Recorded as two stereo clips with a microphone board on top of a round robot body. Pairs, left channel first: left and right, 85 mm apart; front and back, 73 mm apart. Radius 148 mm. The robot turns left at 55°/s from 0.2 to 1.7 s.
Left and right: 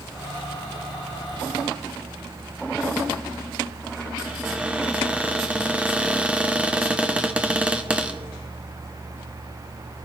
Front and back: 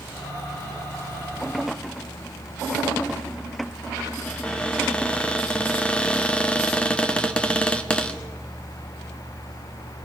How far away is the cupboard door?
About 1.4 m.